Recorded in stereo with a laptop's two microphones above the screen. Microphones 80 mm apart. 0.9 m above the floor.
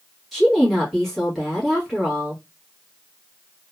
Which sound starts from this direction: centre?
A woman speaking, at 0.3 s.